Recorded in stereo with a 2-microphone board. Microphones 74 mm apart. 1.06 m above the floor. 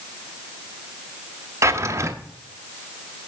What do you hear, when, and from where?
1.6 s a drawer: 35° right (ahead or behind), 0.6 m